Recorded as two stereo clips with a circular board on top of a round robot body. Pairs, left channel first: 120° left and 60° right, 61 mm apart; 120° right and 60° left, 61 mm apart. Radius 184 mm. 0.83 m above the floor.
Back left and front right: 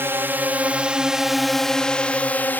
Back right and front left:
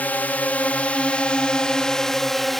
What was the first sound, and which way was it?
A drone, 75° right.